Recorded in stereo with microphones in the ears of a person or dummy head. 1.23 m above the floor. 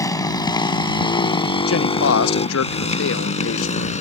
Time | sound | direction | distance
0.0 | a motorcycle | 20° left (ahead or behind) | ?
1.7 | a man speaking | 80° left | ?